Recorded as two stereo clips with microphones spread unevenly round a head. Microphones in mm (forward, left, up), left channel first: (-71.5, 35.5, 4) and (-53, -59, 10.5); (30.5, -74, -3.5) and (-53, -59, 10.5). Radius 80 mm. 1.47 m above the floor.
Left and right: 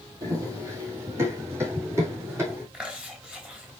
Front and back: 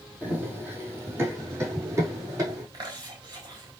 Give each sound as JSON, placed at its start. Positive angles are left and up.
{"t": 0.2, "sound": "running footsteps", "azimuth_deg": -125, "distance_m": 3.0}
{"t": 2.7, "sound": "chewing", "azimuth_deg": -155, "distance_m": 4.5}